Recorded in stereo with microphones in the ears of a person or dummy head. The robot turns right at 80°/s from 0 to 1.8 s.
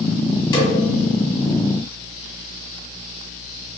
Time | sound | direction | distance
0.5 | a snare drum | 20° left (ahead or behind) | 1.6 m